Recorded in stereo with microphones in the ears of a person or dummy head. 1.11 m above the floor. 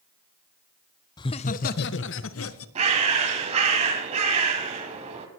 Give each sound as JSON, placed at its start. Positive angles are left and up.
{"t": 1.2, "sound": "laughter", "side_deg": 15, "distance_m": 0.5}
{"t": 2.8, "sound": "a bird", "side_deg": -40, "distance_m": 2.0}